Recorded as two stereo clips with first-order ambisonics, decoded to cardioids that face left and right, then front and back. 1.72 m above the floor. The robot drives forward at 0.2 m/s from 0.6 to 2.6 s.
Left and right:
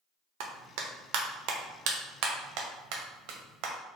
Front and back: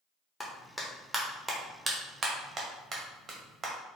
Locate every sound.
0.4 s a clap: 80° right, 0.7 m; by 3.7 s 115° right, 0.7 m